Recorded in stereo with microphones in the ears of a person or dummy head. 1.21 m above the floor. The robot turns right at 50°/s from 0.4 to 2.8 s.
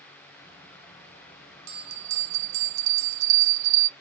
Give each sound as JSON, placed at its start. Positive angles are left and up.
{"t": 1.7, "sound": "a bell", "azimuth_deg": -115, "distance_m": 0.5}